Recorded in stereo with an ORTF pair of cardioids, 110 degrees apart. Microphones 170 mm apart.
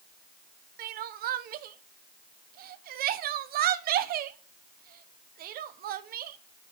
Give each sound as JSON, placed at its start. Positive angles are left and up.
{"t": 0.8, "sound": "crying", "azimuth_deg": -65, "distance_m": 0.7}